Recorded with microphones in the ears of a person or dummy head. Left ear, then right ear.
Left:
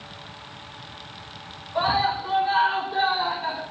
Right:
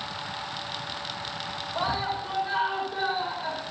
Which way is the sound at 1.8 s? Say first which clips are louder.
Left 7 dB; centre (ahead or behind).